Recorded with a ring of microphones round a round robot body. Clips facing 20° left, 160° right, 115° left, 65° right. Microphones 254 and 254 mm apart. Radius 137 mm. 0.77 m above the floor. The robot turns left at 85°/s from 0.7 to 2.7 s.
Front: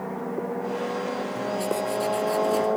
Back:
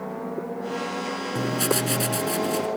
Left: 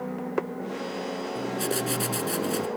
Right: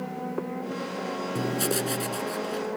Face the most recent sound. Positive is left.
turn(degrees=125)